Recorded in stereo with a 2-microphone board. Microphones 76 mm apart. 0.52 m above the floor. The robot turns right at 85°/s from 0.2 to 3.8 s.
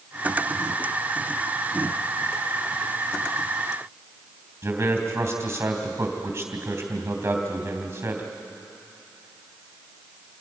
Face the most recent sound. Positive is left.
turn(degrees=-35)  # may be behind; listen again after turning